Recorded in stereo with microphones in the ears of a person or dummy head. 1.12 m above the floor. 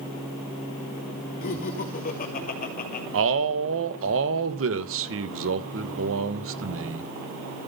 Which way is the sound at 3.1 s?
65° right (ahead or behind).